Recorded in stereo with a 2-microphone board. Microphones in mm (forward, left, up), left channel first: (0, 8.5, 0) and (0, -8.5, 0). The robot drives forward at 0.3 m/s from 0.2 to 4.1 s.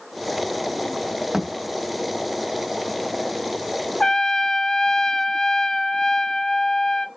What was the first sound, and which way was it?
A thud, 45° right (ahead or behind).